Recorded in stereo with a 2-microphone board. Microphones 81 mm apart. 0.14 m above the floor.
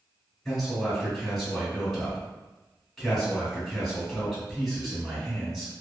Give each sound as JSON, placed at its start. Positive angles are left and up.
{"t": 0.5, "sound": "a man speaking", "side_deg": 5, "distance_m": 1.3}